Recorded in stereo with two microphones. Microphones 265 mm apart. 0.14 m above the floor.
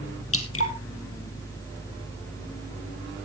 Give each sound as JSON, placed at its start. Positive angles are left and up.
{"t": 0.3, "sound": "dripping", "side_deg": 55, "distance_m": 2.0}